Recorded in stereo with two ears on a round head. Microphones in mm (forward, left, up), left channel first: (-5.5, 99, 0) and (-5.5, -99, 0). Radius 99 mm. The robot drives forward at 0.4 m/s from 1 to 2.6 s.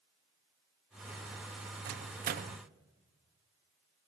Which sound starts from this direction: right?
A microwave, at 1.9 s.